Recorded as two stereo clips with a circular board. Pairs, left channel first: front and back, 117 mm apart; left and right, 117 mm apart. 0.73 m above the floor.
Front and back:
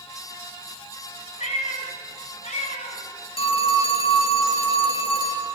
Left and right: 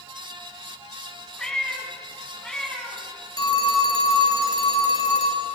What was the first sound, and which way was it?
A cat meowing, 5° left.